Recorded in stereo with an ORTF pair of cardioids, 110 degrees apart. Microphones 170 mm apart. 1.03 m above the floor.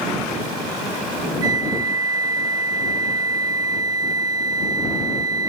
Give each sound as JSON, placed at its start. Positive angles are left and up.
{"t": 1.4, "sound": "a flute", "azimuth_deg": -20}